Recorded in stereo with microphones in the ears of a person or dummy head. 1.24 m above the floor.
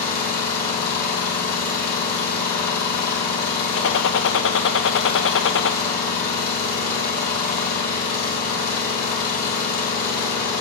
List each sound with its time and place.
0.0 s an engine running: 50° left (ahead or behind), 3 m
3.7 s a gunshot: 55° left (ahead or behind), 0.6 m